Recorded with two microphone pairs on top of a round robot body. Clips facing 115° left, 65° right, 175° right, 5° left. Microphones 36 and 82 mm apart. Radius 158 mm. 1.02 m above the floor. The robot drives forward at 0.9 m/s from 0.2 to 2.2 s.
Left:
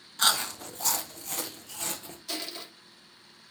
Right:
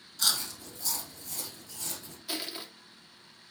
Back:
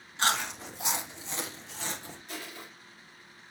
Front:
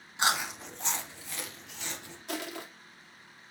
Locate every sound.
0.2 s chewing: 80° left, 1.2 m; by 2.2 s 145° left, 2.0 m
2.3 s crushing: 10° left, 2 m